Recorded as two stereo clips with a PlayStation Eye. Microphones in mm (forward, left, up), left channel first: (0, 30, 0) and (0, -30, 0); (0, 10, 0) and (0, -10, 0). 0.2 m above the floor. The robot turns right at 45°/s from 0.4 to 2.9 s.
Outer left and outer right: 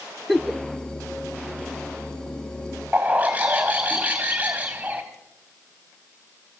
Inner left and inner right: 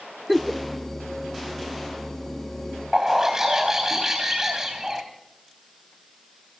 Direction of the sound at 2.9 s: 20° right (ahead or behind).